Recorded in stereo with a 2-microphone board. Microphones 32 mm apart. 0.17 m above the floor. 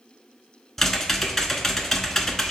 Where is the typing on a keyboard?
10° left (ahead or behind), 0.6 m.